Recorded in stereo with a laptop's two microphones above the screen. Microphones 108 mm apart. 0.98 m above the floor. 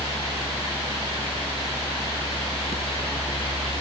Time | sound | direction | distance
0.0 | a machine running | 70° left (ahead or behind) | ?